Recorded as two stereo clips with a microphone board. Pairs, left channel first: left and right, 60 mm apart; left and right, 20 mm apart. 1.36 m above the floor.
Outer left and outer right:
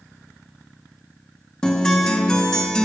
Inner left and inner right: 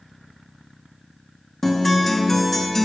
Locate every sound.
1.6 s a guitar: 10° left (ahead or behind), 1.3 m